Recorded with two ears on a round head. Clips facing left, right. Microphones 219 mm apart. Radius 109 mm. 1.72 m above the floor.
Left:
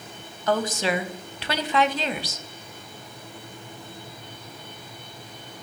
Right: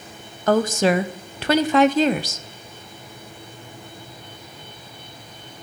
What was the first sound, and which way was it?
A woman speaking, 40° right (ahead or behind).